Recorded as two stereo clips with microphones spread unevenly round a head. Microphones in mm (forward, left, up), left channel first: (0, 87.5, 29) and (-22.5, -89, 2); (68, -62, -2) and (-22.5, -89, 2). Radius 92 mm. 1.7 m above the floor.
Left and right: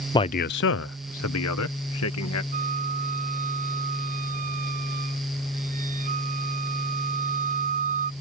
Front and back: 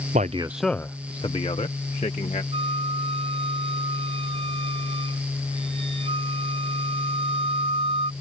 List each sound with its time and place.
0.1 s a man speaking: 155° left; by 2.4 s 70° left
2.5 s a flute: 145° right